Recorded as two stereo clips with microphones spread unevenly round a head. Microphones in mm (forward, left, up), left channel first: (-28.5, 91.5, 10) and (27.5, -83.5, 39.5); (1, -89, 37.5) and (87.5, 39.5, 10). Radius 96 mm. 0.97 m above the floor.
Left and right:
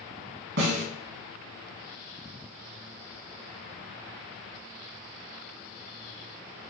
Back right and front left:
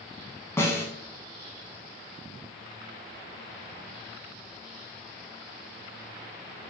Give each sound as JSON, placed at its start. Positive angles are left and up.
{"t": 0.6, "sound": "a snare drum", "azimuth_deg": -55, "distance_m": 2.5}